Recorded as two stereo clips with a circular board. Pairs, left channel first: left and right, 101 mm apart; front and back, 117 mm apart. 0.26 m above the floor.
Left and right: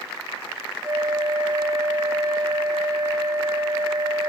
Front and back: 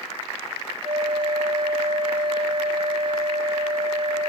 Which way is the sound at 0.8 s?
140° right.